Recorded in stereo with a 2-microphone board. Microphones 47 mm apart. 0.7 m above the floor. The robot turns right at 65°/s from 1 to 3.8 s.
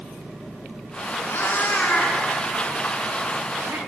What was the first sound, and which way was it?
A cat meowing, 65° left (ahead or behind).